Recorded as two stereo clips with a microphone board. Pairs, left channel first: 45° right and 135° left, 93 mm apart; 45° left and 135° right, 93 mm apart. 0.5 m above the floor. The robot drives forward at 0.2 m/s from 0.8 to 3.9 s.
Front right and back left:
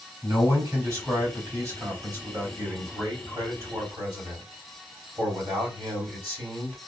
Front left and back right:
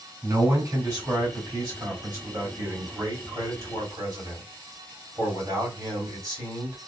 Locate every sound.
0.2 s a man speaking: 175° right, 2 m